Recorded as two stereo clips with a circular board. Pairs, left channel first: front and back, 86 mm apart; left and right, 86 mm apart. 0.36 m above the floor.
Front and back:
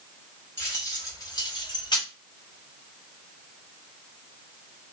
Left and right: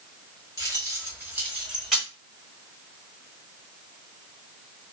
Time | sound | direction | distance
0.6 | keys jangling | 50° right | 1.3 m